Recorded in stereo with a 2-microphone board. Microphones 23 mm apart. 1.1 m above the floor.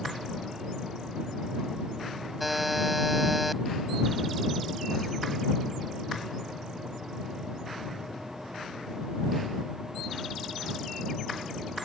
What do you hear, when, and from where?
2.4 s a buzzer: 5° right (ahead or behind)